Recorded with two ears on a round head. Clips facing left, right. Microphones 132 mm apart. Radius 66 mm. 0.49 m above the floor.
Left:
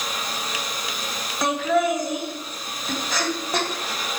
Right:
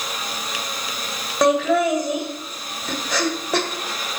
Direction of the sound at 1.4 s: 55° right (ahead or behind).